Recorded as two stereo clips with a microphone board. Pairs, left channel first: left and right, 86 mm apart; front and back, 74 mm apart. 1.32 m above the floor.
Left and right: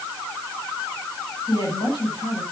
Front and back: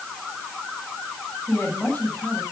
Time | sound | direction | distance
1.5 | a woman speaking | 60° left | 7.5 m